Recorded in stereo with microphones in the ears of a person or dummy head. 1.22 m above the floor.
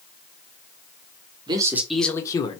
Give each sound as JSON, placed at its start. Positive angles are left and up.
{"t": 1.5, "sound": "a man speaking", "side_deg": -25, "distance_m": 0.8}